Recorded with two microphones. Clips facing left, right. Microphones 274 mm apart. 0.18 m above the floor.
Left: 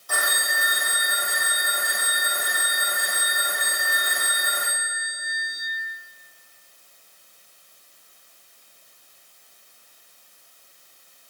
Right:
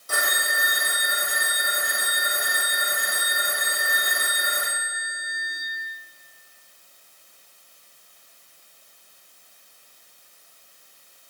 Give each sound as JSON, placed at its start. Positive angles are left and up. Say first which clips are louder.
{"t": 0.1, "sound": "a phone ringing", "louder": "right 1 dB", "side_deg": -25, "distance_m": 5.0}